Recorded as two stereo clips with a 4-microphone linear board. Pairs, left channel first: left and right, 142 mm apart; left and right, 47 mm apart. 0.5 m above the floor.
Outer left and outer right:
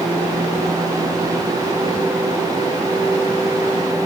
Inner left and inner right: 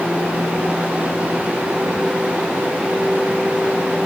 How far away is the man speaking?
I don't hear a man speaking.